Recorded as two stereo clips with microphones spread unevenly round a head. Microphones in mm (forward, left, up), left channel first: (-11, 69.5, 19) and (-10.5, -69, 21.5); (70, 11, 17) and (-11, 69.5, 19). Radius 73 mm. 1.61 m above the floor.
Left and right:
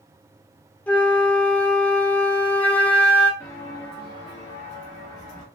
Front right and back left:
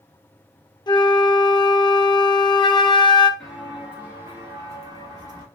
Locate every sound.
0.9 s a flute: 10° left, 0.6 m
3.4 s footsteps: 55° left, 1.6 m; by 5.5 s 110° left, 2.5 m